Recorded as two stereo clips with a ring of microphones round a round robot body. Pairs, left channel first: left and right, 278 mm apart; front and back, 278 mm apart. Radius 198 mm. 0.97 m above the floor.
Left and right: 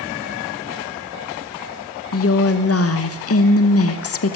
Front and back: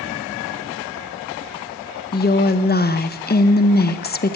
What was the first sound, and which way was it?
A woman speaking, 55° left.